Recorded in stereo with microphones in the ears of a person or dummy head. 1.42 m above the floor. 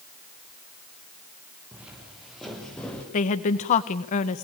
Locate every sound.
1.7 s footsteps: 10° right (ahead or behind), 6 m; by 3.0 s 10° left (ahead or behind), 5.5 m
3.1 s a woman speaking: 45° left (ahead or behind), 1.0 m